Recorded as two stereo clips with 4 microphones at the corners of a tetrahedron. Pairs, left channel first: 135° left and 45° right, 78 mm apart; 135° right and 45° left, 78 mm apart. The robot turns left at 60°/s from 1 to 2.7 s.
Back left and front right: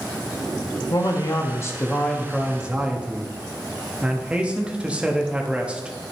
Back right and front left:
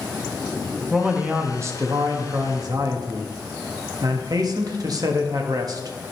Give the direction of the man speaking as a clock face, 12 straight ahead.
8 o'clock.